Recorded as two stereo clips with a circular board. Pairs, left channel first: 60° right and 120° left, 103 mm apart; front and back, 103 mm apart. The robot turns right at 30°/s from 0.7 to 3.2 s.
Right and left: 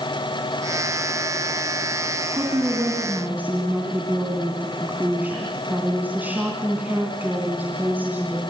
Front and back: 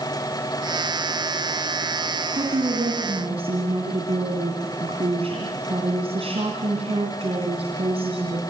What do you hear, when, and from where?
2.3 s a woman speaking: 165° left, 3.5 m; by 8.4 s 170° right, 3.5 m